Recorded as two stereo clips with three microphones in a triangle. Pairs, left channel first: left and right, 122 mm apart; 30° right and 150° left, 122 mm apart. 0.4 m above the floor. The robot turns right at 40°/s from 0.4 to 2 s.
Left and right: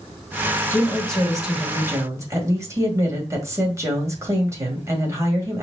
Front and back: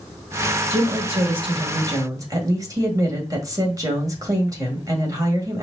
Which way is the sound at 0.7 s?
155° left.